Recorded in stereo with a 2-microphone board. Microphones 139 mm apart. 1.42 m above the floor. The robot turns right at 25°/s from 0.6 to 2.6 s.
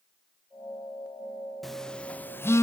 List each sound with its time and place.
1.6 s a phone buzzing: centre (ahead or behind), 0.5 m; by 2.6 s 20° left (ahead or behind), 0.5 m